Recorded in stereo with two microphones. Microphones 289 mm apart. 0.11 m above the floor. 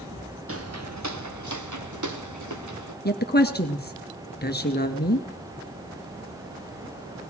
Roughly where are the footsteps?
Right.